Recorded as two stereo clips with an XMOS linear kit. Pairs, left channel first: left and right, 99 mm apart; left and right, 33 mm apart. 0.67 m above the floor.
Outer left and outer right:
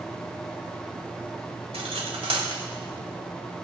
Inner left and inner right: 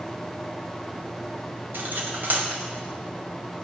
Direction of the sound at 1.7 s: 85° right.